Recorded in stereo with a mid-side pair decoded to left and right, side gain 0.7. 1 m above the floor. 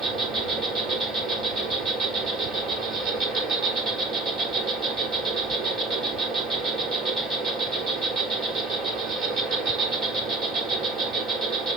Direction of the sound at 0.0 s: 35° right.